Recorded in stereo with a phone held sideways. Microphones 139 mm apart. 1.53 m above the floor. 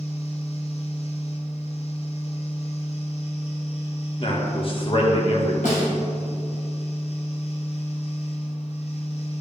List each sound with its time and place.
0.0 s a fan: 50° left (ahead or behind), 1.1 m
4.2 s a man speaking: 40° left (ahead or behind), 1.6 m
5.6 s a snare drum: 70° left (ahead or behind), 2.5 m